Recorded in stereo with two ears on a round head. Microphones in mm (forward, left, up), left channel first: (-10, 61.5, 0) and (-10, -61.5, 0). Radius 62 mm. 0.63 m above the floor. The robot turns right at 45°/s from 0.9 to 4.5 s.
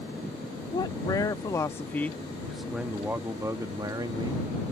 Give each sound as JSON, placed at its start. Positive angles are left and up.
{"t": 0.7, "sound": "a man speaking", "azimuth_deg": 105}